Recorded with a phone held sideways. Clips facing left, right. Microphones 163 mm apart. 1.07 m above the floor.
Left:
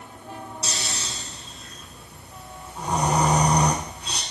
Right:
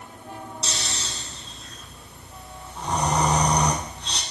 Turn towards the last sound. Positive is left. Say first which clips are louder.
# left 1 dB
turn(degrees=5)  # may be behind; listen again after turning